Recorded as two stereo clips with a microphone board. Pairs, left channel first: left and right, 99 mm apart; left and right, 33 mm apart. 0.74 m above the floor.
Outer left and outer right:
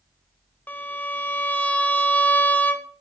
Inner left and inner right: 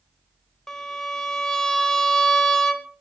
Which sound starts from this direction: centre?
A violin, at 0.7 s.